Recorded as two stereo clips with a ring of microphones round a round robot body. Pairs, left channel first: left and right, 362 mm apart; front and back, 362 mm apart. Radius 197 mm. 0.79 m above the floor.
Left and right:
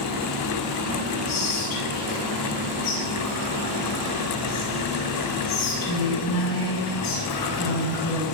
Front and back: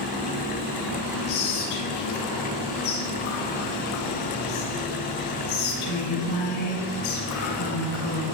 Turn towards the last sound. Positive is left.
turn(degrees=50)